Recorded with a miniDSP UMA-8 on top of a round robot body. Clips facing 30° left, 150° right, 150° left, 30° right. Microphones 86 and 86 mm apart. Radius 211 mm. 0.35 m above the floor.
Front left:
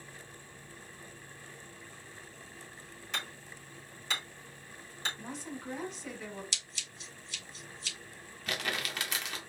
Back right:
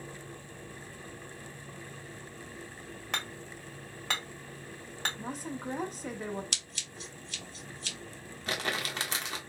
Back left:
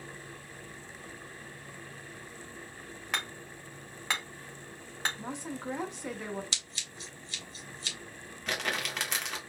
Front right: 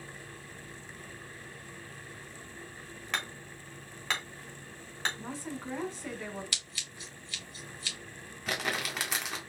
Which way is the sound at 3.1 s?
130° right.